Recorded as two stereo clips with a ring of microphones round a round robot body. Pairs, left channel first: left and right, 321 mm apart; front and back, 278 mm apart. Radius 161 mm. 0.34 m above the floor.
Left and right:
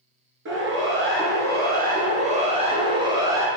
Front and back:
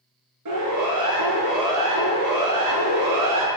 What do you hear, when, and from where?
0.5 s a siren: 145° right, 5 m; by 3.5 s 170° right, 3.5 m